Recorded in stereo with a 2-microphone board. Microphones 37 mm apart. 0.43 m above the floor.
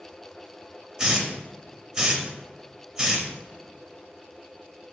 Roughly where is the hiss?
Centre.